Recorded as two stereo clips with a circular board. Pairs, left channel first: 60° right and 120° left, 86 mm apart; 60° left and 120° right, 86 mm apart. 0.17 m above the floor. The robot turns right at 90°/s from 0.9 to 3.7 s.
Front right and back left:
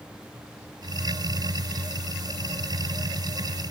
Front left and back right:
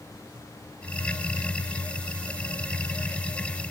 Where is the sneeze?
No sneeze in this recording.